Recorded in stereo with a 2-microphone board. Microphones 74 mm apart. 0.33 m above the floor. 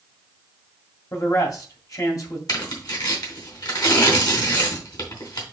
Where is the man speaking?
50° left (ahead or behind), 2 m.